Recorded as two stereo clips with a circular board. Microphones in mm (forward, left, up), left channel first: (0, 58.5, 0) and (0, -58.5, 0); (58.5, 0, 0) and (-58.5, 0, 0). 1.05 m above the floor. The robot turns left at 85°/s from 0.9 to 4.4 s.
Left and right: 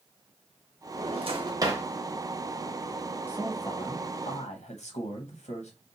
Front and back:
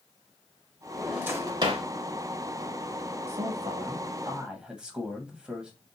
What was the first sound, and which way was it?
A drawer, 90° right.